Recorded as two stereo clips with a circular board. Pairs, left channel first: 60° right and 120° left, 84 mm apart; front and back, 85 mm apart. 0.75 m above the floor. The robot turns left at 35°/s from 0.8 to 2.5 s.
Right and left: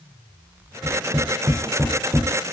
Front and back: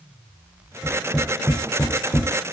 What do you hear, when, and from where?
0.8 s tapping: 105° left, 10 m; by 2.2 s 55° left, 10 m